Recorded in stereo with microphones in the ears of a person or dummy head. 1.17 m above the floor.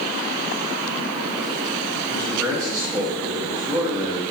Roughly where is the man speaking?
Centre.